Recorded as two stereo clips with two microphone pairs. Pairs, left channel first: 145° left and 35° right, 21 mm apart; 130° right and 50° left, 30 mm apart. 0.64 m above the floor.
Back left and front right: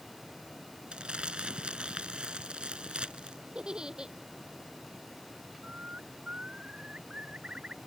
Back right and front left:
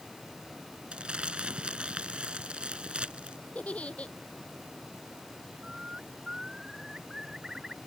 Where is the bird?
20° right.